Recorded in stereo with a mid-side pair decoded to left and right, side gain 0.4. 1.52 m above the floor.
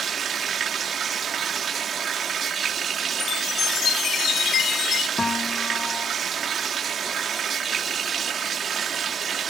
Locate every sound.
0.0 s running water: 55° right
3.2 s a chime: 65° left
5.2 s a piano: 30° left